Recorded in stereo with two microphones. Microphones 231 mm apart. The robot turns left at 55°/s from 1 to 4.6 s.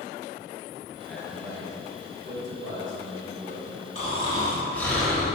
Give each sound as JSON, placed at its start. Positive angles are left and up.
{"t": 1.1, "sound": "a man speaking", "azimuth_deg": 10, "distance_m": 1.8}
{"t": 4.0, "sound": "snoring", "azimuth_deg": 45, "distance_m": 1.8}